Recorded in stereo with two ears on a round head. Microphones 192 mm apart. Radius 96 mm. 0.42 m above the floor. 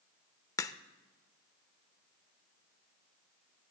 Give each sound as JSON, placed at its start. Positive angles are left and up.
{"t": 0.6, "sound": "a crack", "side_deg": 15, "distance_m": 0.6}